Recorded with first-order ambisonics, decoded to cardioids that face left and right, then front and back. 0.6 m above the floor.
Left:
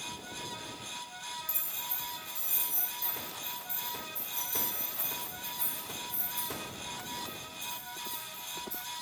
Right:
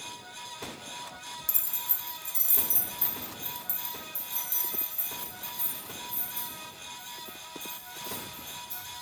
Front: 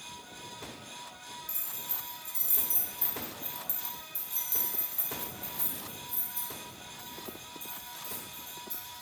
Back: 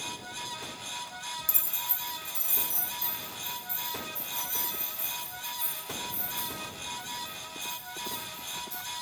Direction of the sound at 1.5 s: 145° right.